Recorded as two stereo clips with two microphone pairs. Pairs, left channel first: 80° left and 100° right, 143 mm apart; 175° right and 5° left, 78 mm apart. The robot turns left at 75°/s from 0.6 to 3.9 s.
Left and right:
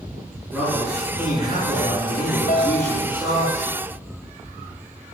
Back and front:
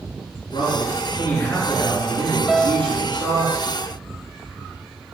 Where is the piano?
100° left, 1.3 m; by 3.0 s 65° left, 1.3 m.